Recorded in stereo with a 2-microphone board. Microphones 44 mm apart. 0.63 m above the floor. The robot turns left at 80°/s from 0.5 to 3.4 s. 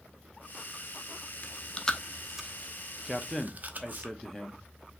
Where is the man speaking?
Centre (ahead or behind), 0.8 m; by 4.6 s 10° left (ahead or behind), 0.8 m.